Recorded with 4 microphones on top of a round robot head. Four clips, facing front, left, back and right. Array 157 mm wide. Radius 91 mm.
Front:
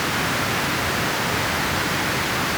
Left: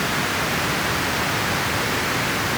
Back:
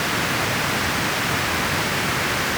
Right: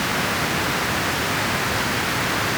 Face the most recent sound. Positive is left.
No sound to turn to.